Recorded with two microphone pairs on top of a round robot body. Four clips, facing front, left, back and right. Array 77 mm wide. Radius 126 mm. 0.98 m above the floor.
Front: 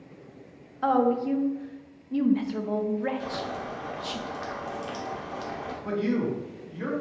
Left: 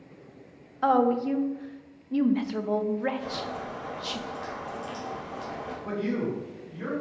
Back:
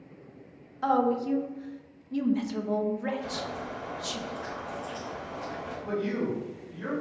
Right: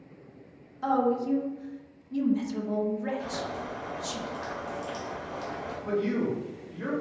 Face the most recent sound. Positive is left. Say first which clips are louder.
# right 2 dB, front 3 dB
turn(degrees=5)